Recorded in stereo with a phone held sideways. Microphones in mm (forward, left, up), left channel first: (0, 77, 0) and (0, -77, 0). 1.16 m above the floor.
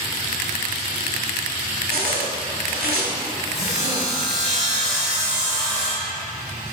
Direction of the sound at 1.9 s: 75° right (ahead or behind).